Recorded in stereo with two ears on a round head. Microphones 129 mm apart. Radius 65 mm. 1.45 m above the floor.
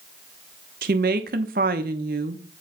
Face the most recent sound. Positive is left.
turn(degrees=-65)  # may be behind; listen again after turning